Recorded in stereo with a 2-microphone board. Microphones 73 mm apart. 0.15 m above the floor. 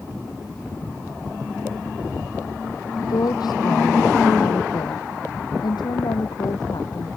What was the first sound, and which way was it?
A woman speaking, 75° left (ahead or behind).